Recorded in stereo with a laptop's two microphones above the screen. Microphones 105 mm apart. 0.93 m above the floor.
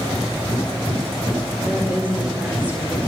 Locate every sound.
1.6 s a woman speaking: 15° right (ahead or behind), 3.5 m